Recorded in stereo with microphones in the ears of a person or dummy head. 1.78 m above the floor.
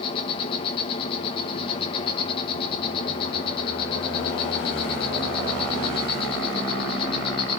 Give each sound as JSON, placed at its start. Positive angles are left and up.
{"t": 0.0, "sound": "an insect", "side_deg": 30, "distance_m": 1.1}